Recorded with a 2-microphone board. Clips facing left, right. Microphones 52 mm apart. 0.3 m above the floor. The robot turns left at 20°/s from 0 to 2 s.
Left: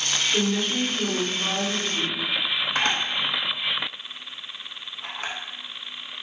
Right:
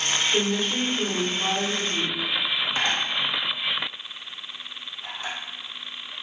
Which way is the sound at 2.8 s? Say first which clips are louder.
Left 2 dB; 65° left (ahead or behind).